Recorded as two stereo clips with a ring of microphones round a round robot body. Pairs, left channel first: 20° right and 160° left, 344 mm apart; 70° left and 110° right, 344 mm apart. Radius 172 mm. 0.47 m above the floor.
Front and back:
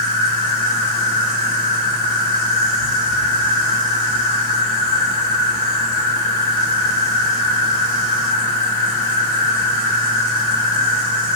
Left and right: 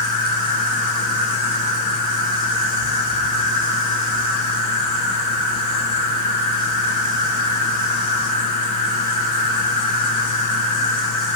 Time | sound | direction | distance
0.0 | an insect | 95° left | 4 m